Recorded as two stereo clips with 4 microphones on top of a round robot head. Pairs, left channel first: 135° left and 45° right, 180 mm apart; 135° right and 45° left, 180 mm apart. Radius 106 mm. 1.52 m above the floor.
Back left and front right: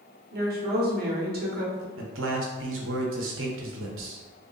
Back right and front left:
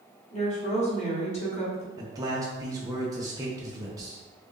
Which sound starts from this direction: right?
A woman speaking, at 0.3 s.